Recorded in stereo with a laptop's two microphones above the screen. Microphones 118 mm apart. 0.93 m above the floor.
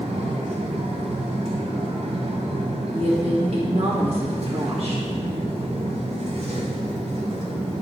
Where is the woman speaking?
60° right (ahead or behind), 1.7 m.